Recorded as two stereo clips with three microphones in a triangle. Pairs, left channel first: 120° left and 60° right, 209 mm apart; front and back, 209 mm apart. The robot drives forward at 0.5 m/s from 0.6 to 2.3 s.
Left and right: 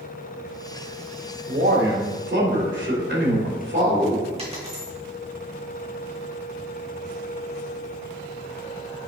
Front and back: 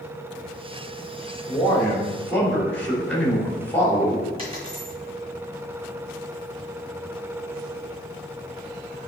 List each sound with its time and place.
1.5 s a man speaking: 75° right, 3 m; by 4.3 s 80° right, 3 m
4.4 s a dropped coin: 120° right, 2.5 m